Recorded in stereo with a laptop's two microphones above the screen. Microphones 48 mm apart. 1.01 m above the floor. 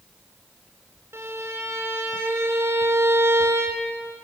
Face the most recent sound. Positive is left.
turn(degrees=-65)  # may be behind; listen again after turning